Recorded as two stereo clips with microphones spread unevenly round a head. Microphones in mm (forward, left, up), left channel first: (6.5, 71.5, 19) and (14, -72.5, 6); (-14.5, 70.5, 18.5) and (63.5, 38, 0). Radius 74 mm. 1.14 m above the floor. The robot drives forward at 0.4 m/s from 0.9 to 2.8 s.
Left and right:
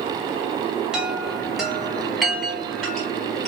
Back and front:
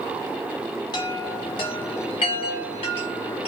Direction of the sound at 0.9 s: 175° right.